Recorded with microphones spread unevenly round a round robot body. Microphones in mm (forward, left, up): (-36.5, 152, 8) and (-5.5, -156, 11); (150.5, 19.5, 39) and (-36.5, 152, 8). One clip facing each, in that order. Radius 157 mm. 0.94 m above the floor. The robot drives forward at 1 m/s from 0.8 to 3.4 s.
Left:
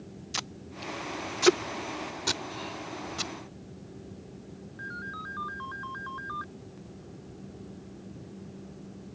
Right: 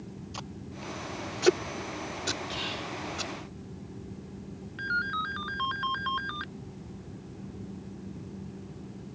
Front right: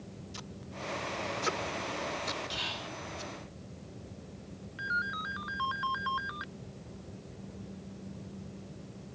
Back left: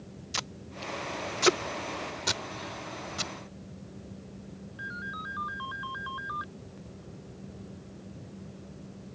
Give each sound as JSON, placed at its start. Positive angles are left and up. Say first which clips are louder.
{"t": 0.3, "sound": "tape being pulled", "louder": "right 1 dB, back left 3 dB", "azimuth_deg": 145}
{"t": 2.5, "sound": "whispering", "louder": "right 1 dB, back left 2 dB", "azimuth_deg": -50}
{"t": 4.8, "sound": "a ringtone", "louder": "right 3 dB, back left 1 dB", "azimuth_deg": -85}